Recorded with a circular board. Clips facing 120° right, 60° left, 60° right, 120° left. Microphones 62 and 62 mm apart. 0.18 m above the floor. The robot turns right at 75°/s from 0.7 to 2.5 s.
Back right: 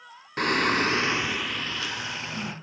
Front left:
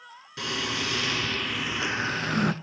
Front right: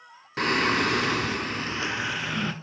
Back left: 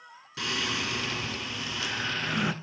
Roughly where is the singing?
Right.